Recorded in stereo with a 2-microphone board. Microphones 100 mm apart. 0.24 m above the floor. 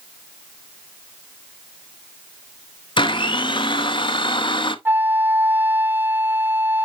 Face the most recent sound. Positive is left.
turn(degrees=-20)  # may be behind; listen again after turning